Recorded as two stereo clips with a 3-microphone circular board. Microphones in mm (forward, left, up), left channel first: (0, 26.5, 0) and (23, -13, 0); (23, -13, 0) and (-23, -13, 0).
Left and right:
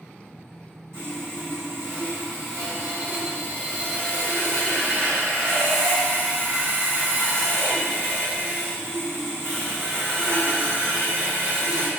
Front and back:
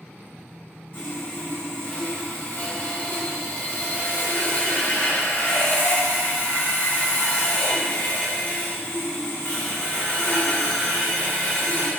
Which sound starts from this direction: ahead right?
Sawing, at 0.9 s.